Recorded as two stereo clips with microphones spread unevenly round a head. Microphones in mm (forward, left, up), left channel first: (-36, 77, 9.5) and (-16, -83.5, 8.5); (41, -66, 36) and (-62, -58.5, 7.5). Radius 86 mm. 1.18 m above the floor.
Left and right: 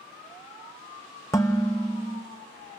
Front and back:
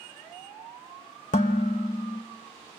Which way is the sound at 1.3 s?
20° left.